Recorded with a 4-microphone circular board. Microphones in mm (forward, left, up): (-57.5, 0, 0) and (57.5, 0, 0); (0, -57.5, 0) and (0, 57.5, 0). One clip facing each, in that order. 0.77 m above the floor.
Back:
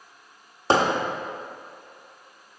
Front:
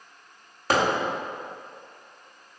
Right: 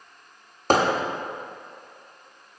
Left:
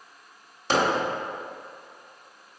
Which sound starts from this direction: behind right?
Hammering, at 0.7 s.